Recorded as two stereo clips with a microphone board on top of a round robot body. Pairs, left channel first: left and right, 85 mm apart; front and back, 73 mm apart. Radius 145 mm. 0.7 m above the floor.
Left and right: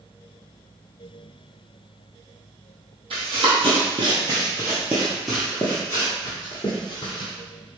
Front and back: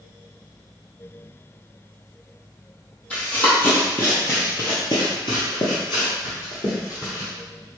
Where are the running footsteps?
75° right, 1.3 m; by 7.3 s 55° left, 1.4 m.